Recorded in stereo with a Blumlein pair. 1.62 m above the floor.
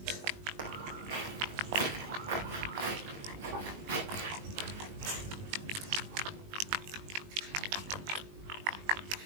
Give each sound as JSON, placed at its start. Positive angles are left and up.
{"t": 0.6, "sound": "footsteps", "azimuth_deg": -50, "distance_m": 5.0}